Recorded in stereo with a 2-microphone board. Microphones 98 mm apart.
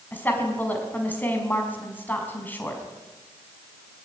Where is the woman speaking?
15° left (ahead or behind), 5 m.